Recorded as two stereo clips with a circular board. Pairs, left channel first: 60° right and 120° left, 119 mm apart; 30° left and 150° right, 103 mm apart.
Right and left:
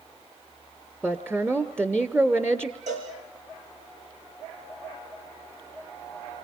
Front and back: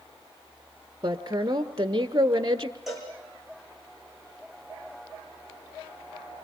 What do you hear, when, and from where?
1.0 s a woman speaking: 175° right, 1.4 m
2.9 s a cowbell: 120° left, 5 m